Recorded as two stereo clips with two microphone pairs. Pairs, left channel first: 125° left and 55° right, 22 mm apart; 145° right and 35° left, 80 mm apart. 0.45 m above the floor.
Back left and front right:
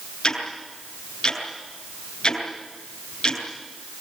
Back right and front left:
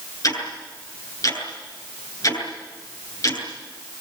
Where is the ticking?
170° left, 8.5 m.